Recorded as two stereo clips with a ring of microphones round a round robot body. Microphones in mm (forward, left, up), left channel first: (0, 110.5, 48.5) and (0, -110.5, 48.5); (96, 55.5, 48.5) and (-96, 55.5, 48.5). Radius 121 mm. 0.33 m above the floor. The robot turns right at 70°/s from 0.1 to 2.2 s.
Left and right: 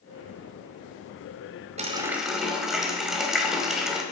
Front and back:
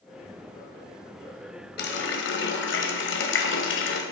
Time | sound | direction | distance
1.8 | a running tap | 30° right | 1.3 m